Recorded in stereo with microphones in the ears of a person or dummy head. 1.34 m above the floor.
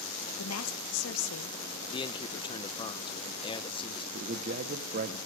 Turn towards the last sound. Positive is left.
turn(degrees=-45)  # may be behind; listen again after turning